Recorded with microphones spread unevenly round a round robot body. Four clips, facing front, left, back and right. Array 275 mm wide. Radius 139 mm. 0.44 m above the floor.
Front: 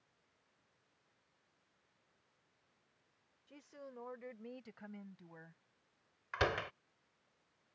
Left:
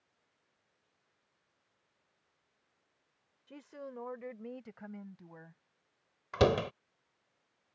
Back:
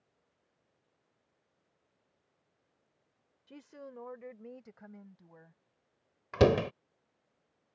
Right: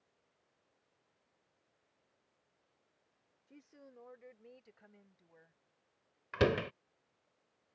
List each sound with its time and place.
3.5 s a woman speaking: 120° left; by 5.6 s 75° left
6.3 s a door slam: 170° left